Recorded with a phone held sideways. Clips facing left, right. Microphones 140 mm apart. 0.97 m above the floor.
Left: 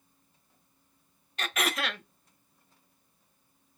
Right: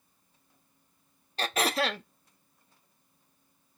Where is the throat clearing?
35° right (ahead or behind), 0.7 m.